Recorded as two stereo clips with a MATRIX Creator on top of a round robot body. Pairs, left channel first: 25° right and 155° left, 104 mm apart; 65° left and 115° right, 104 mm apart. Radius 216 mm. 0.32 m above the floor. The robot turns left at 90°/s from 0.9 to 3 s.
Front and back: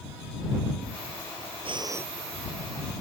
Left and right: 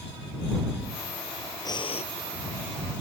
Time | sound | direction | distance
1.6 | breathing | 120° left | ?